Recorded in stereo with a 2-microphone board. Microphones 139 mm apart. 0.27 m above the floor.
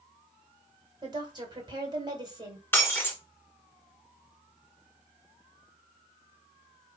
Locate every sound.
1.0 s a woman speaking: 30° right (ahead or behind), 1.8 m
2.7 s breaking glass: 15° left (ahead or behind), 2 m